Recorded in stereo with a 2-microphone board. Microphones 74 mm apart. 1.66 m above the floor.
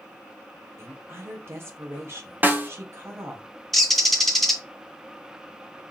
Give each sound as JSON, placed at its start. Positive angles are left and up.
{"t": 0.8, "sound": "a woman speaking", "side_deg": -30, "distance_m": 1.7}
{"t": 2.4, "sound": "a snare drum", "side_deg": -25, "distance_m": 0.7}
{"t": 3.7, "sound": "a bird", "side_deg": 5, "distance_m": 1.0}